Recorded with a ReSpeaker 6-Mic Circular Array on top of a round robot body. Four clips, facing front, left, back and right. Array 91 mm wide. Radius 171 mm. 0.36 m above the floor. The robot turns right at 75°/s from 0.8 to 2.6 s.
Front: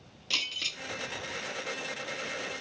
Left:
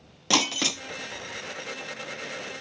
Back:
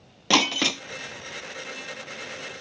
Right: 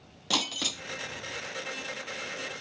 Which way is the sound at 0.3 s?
165° left.